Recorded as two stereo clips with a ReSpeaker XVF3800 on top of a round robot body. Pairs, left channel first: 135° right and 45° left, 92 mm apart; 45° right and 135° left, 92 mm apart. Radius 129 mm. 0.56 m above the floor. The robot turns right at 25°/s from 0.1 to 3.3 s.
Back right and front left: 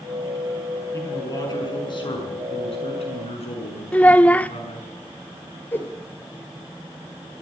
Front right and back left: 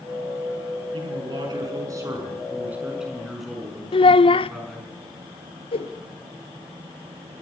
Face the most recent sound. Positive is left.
turn(degrees=-65)